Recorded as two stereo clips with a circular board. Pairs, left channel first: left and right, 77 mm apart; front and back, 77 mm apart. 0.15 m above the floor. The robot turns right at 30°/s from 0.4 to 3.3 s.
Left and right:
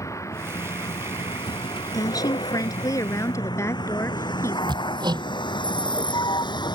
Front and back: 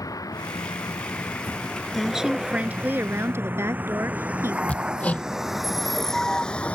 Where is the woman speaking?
90° left; by 4.6 s 130° left.